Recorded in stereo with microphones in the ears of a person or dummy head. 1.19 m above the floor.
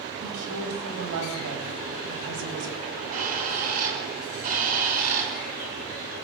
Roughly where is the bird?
Right.